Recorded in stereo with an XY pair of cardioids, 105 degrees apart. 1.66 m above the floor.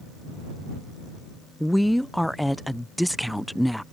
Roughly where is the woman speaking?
Ahead.